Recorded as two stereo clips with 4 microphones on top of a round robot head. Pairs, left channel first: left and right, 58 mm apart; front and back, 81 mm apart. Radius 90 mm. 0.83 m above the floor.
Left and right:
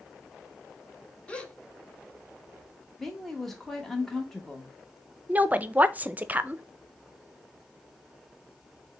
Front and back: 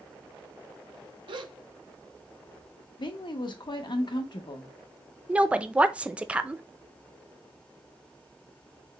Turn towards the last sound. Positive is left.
turn(degrees=-120)